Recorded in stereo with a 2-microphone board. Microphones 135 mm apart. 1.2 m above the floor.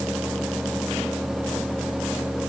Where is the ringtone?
No ringtone in this recording.